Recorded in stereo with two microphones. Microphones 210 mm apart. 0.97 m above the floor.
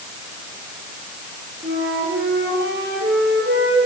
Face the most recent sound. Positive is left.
turn(degrees=-55)  # may be behind; listen again after turning